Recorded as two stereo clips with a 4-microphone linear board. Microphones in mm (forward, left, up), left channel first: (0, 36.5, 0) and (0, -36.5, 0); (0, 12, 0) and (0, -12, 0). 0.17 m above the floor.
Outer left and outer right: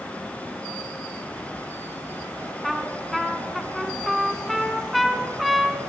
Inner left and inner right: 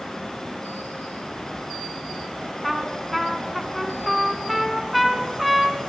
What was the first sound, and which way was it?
A trumpet, centre (ahead or behind).